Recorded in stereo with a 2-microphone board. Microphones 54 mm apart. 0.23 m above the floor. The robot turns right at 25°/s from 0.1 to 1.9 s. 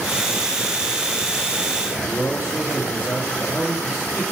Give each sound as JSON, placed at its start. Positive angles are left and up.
{"t": 1.8, "sound": "a man speaking", "side_deg": -35, "distance_m": 4.0}